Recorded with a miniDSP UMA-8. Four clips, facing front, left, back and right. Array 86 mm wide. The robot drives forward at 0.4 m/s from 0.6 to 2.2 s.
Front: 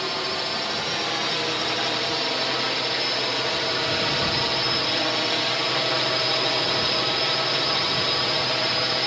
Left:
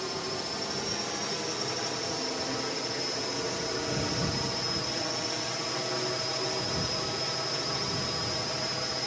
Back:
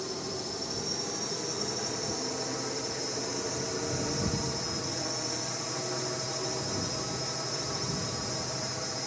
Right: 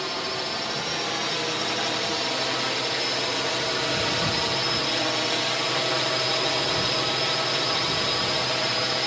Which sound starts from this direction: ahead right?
A drone, at 0.0 s.